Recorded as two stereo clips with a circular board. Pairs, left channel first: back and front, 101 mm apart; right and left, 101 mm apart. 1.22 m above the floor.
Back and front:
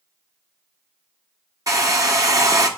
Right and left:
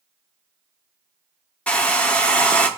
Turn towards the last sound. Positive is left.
turn(degrees=-20)